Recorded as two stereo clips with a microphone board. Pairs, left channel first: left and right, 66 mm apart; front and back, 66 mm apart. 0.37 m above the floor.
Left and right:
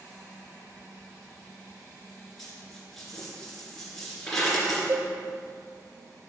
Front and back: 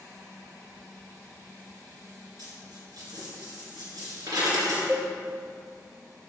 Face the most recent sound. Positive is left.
turn(degrees=-110)